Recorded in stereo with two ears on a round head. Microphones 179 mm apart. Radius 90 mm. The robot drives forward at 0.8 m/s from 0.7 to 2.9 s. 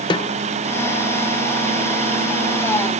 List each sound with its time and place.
0.1 s a snare drum: 25° left (ahead or behind), 0.8 m